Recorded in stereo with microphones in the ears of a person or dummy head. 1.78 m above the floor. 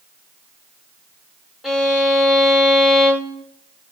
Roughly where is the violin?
Centre.